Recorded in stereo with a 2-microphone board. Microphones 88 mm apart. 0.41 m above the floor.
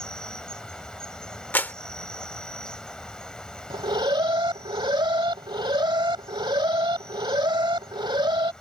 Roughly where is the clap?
Left.